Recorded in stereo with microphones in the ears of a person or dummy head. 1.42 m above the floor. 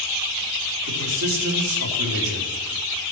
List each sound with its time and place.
0.9 s a man speaking: 80° right, 3 m